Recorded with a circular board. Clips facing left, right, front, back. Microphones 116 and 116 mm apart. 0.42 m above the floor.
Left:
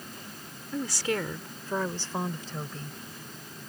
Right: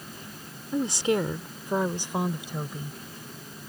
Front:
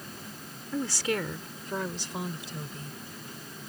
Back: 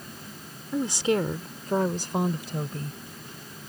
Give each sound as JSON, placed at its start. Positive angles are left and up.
{"t": 0.7, "sound": "a woman speaking", "azimuth_deg": -120}